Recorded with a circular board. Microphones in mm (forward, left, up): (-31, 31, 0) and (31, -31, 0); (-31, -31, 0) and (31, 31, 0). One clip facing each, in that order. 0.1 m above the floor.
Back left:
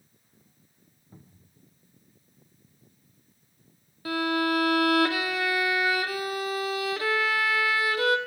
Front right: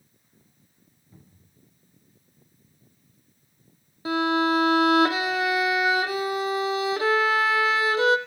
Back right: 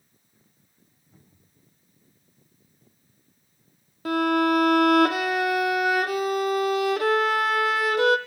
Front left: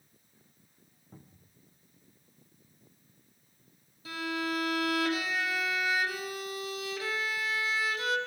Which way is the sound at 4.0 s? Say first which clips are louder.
Front right 4 dB, back right 13 dB; 115° right.